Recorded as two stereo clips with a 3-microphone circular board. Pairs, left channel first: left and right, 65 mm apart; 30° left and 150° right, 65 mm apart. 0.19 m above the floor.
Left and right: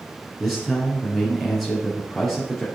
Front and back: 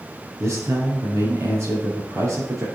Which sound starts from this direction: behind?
A man speaking, at 0.4 s.